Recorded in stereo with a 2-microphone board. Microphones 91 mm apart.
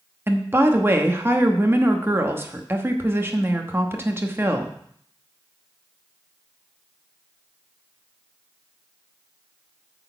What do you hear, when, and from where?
0.3 s a woman speaking: 25° right (ahead or behind), 1.0 m